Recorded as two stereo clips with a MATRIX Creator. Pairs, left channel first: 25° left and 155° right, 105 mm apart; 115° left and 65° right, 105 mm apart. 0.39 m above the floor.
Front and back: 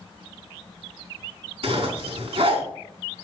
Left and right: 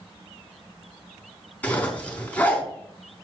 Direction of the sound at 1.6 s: 170° right.